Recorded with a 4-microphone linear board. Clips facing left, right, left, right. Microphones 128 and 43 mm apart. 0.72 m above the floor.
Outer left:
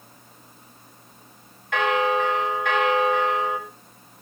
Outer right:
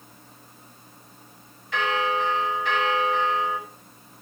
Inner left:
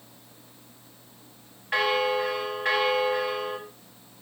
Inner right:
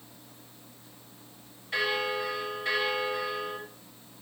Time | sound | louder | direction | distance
1.7 | a bell | outer left 4 dB, inner left 5 dB | 55° left (ahead or behind) | 2.0 m